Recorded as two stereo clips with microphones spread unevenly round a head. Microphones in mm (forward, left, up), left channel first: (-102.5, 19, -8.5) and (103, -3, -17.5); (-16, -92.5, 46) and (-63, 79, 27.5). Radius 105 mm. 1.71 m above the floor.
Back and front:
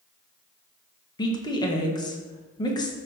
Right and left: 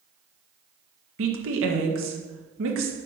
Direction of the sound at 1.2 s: 105° left.